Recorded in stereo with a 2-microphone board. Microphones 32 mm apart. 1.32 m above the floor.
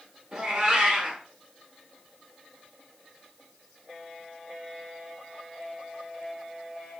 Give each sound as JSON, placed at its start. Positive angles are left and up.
{"t": 0.3, "sound": "a cat meowing", "side_deg": -25, "distance_m": 1.3}